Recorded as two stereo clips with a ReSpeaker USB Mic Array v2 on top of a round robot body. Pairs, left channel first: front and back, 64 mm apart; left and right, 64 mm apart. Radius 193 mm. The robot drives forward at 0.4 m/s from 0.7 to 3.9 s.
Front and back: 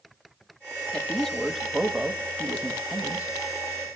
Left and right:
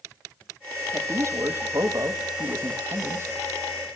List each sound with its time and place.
0.9 s a man speaking: 75° right, 1.6 m; by 3.9 s 130° right, 1.8 m